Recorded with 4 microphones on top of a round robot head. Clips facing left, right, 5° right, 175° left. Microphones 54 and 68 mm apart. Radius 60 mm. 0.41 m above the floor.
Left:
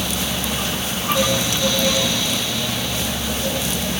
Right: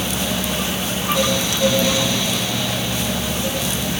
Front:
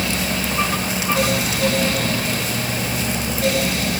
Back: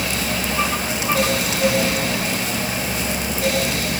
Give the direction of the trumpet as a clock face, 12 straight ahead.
I don't hear a trumpet.